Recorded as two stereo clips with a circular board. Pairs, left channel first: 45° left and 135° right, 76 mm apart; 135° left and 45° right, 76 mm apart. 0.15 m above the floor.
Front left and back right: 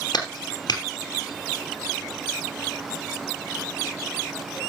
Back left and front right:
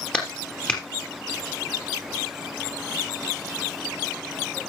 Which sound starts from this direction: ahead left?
A clap, at 0.1 s.